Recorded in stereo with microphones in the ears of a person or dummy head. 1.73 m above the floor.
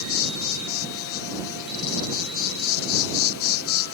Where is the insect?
75° left (ahead or behind).